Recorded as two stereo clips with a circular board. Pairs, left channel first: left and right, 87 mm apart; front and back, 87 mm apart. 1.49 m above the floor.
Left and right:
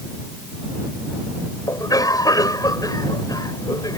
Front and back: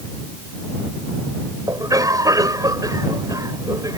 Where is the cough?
135° left.